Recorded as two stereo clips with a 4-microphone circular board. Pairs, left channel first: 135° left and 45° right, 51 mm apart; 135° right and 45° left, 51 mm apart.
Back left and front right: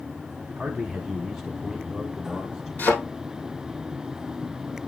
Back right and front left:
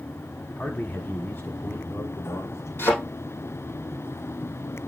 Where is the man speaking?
120° right, 1.1 m; by 2.7 s 135° right, 1.9 m.